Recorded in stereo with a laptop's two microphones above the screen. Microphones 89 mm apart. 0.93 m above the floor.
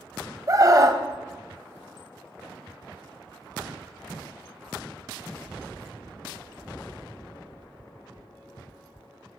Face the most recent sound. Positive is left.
turn(degrees=-35)  # may be behind; listen again after turning